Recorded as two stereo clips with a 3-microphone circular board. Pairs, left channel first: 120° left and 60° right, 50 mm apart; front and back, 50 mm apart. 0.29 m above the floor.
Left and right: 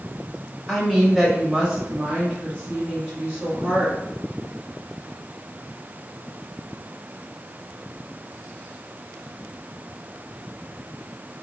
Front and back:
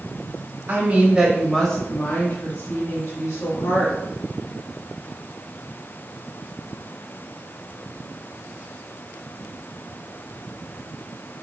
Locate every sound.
0.7 s a woman speaking: 165° right, 1.4 m; by 4.0 s straight ahead, 3 m